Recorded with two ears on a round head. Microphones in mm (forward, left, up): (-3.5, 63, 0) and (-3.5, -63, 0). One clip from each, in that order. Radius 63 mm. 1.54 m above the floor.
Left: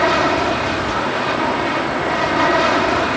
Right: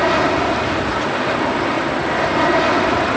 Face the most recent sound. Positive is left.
turn(degrees=20)  # may be behind; listen again after turning